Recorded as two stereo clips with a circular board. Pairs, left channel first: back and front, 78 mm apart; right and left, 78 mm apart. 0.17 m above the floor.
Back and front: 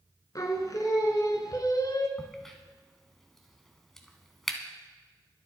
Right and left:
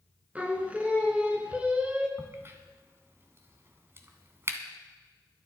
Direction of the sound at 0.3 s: 160° left.